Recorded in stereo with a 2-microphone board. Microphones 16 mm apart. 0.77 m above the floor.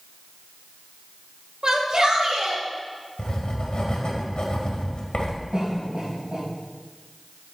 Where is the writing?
70° left (ahead or behind), 1.8 m.